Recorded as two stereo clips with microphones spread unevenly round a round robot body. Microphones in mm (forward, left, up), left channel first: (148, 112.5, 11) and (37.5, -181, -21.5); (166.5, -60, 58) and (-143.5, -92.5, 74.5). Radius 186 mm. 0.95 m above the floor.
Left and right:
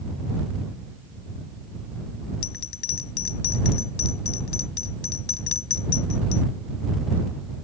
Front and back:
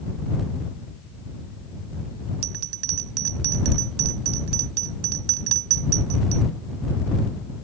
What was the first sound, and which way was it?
A bell, 135° left.